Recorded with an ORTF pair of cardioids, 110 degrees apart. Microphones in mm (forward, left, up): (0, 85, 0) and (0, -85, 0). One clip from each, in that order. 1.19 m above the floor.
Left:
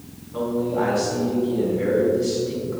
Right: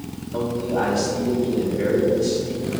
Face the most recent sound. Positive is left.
turn(degrees=-55)